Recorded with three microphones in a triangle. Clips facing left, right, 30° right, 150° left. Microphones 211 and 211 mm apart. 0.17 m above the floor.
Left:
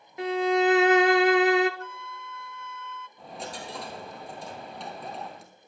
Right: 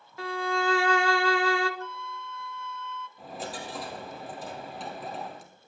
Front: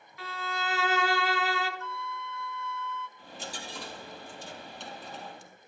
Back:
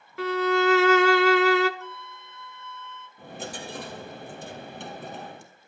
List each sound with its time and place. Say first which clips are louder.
0.2 s a violin: left 7 dB, back 16 dB; 155° left, 0.6 m
1.8 s a flute: right 2 dB, front 2 dB; 90° left, 0.7 m
3.2 s a dropped coin: right 1 dB, back 6 dB; straight behind, 1.6 m